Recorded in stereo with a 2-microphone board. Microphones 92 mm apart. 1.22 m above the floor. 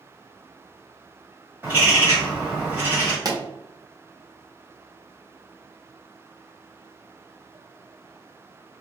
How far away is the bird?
About 1.1 m.